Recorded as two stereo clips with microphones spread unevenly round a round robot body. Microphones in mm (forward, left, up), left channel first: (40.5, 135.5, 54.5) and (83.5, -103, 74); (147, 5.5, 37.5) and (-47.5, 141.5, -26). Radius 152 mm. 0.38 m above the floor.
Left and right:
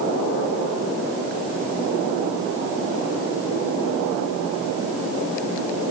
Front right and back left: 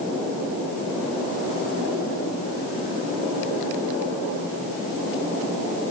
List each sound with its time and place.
Only background noise.